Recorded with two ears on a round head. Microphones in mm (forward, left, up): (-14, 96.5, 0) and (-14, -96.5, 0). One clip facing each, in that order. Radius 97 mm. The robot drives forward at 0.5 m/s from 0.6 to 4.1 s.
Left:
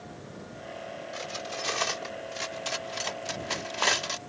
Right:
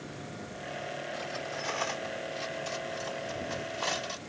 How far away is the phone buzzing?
No phone buzzing in this recording.